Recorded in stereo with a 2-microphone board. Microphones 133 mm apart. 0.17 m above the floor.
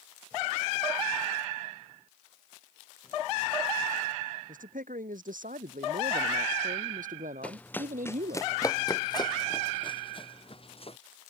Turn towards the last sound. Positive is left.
turn(degrees=45)  # may be behind; listen again after turning